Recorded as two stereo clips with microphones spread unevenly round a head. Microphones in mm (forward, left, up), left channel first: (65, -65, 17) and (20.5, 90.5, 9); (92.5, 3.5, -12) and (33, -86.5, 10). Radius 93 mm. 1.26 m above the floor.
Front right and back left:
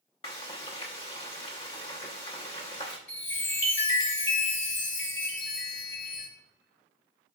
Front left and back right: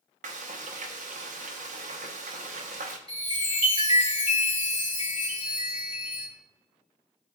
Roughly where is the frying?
Behind right.